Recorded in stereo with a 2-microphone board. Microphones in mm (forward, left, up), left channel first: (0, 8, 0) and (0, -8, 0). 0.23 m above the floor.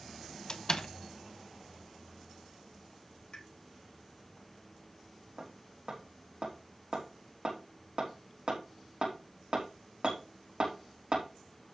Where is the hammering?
60° right (ahead or behind), 4.5 m.